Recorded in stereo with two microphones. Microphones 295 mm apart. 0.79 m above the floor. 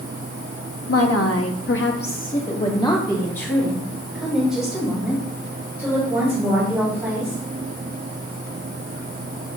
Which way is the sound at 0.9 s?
50° left (ahead or behind).